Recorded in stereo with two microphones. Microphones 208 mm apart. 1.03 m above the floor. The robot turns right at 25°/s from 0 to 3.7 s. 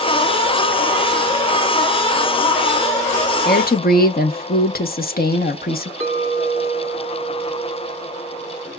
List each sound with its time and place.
3.5 s a woman speaking: 50° left (ahead or behind), 0.7 m; by 5.9 s 45° left (ahead or behind), 0.7 m
6.0 s a clink: 70° left (ahead or behind), 1.6 m